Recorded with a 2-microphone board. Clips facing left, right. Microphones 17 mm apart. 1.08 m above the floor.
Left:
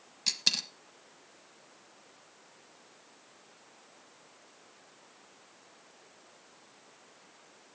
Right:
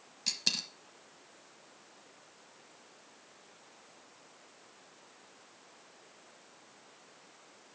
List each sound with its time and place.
0.3 s a dropped coin: 15° left (ahead or behind), 1.1 m